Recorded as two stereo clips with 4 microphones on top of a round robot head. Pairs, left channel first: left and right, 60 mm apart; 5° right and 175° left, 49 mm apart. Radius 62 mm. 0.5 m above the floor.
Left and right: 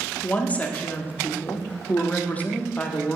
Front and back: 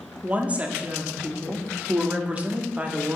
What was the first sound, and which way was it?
A woman speaking, 135° left.